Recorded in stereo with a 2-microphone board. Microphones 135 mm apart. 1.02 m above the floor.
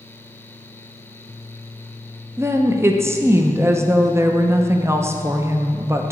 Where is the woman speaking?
20° right (ahead or behind), 0.6 m.